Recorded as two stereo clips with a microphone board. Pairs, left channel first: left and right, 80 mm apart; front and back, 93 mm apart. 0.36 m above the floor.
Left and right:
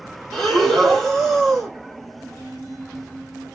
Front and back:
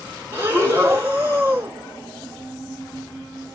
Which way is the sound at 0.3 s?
165° left.